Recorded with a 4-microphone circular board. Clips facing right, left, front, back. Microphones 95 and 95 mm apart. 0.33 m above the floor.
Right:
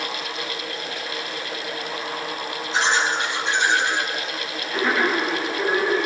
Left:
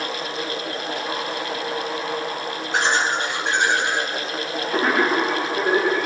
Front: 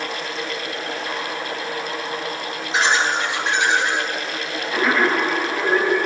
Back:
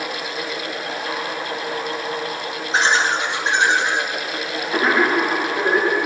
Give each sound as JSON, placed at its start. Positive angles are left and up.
{"t": 2.7, "sound": "laughter", "azimuth_deg": 125, "distance_m": 5.0}